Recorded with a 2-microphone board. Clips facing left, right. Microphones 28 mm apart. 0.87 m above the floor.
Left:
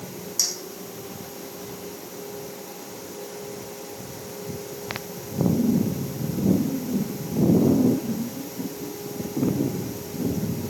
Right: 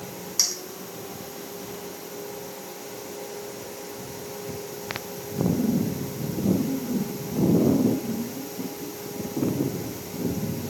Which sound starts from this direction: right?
A clink, at 0.4 s.